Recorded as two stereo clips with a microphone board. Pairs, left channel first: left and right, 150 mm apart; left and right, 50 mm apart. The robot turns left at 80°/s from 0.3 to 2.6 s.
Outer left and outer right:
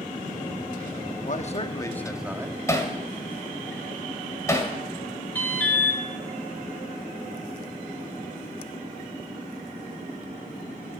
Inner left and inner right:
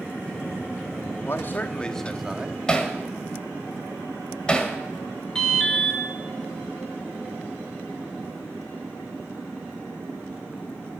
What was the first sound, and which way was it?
A man speaking, 70° left.